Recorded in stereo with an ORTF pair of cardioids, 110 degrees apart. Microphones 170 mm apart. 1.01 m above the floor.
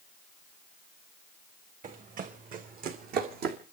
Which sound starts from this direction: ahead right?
Running footsteps, at 1.8 s.